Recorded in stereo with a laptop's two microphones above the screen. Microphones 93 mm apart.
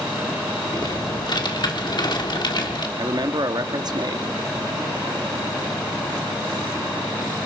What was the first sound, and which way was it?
Typing on a keyboard, 55° left (ahead or behind).